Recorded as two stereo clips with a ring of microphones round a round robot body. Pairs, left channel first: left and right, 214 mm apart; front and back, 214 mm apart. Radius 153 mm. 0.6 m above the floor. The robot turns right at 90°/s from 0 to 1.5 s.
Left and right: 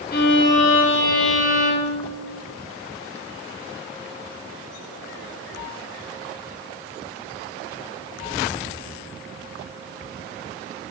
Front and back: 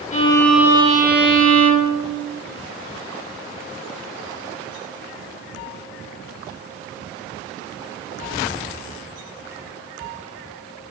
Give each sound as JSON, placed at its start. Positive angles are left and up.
{"t": 0.1, "sound": "a violin", "azimuth_deg": 50, "distance_m": 1.3}